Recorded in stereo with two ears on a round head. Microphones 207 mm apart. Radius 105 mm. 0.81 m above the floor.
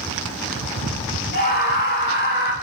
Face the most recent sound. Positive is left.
turn(degrees=50)  # may be behind; listen again after turning